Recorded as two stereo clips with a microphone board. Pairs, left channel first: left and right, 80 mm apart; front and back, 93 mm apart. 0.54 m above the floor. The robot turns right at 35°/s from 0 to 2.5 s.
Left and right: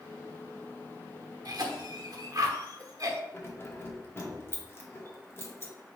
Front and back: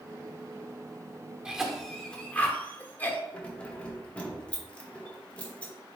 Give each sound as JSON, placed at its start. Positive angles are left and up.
{"t": 1.4, "sound": "a cough", "azimuth_deg": -100, "distance_m": 1.1}
{"t": 3.3, "sound": "keys jangling", "azimuth_deg": 65, "distance_m": 0.8}